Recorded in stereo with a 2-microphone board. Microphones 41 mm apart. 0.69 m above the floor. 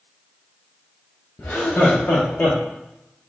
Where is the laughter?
40° left (ahead or behind), 0.7 m.